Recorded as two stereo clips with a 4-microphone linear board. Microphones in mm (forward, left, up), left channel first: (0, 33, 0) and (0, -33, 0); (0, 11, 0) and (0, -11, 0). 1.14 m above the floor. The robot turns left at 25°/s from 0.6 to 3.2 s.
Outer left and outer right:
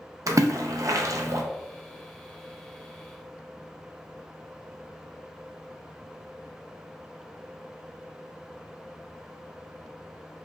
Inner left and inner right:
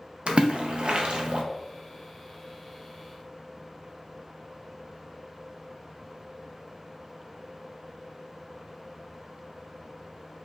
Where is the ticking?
No ticking in this recording.